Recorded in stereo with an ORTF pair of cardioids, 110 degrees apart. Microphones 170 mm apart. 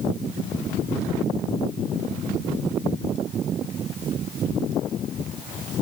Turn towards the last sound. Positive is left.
No sound to turn to.